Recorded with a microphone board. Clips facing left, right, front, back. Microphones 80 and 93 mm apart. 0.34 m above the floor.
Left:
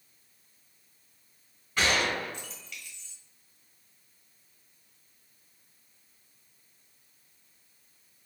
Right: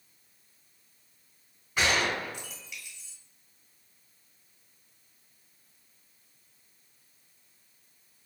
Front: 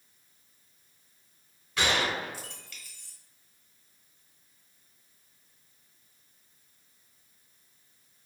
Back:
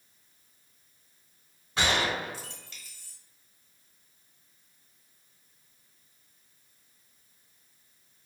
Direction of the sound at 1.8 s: 155° right.